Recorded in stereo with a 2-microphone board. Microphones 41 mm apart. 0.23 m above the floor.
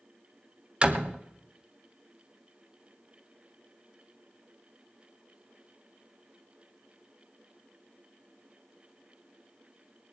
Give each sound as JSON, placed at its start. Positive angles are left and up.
{"t": 0.8, "sound": "a door slam", "side_deg": -30, "distance_m": 0.8}